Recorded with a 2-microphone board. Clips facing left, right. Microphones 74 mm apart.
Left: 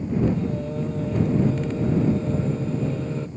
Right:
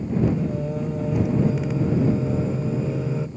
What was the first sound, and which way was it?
Singing, 10° right (ahead or behind).